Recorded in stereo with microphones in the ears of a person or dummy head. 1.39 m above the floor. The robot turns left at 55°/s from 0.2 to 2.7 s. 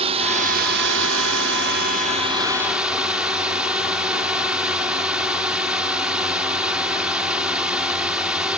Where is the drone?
35° right; by 8.6 s 175° right.